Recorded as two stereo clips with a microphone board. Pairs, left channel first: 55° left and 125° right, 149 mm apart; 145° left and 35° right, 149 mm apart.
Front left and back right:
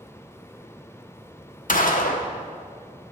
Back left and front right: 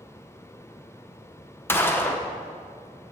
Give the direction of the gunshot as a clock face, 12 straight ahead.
10 o'clock.